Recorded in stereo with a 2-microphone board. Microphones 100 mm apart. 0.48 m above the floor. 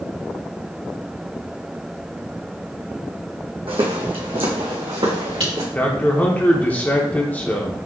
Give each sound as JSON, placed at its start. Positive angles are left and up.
{"t": 3.7, "sound": "footsteps", "side_deg": -70, "distance_m": 1.6}
{"t": 5.8, "sound": "a man speaking", "side_deg": 15, "distance_m": 1.0}